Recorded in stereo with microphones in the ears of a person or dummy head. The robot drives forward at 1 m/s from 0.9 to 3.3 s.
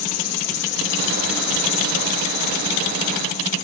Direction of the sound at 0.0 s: 55° left (ahead or behind).